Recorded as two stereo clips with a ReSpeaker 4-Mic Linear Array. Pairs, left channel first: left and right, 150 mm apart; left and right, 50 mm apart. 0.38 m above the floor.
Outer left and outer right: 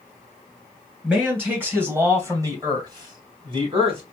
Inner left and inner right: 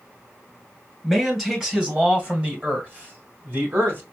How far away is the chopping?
I don't hear chopping.